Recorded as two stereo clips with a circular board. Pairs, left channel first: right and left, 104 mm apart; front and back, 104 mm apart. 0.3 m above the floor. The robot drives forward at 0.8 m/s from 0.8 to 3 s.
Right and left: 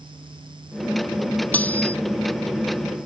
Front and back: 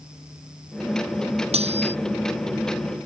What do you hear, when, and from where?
1.5 s cutlery clinking: 165° right